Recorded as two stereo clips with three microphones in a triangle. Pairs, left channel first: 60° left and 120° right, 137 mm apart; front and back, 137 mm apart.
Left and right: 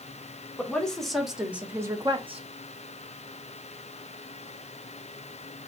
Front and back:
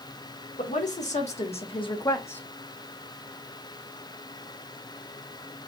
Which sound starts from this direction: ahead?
A woman speaking, at 0.6 s.